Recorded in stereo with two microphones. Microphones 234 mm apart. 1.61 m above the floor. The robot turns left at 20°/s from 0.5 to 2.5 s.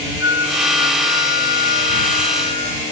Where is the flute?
65° left; by 2.8 s 25° left.